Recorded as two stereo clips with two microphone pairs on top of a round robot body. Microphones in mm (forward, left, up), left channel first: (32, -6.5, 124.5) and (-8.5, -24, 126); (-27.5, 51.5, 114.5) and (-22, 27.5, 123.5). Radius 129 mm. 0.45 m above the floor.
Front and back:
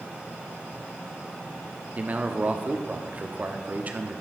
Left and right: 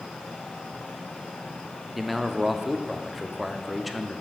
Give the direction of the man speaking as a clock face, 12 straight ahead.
6 o'clock.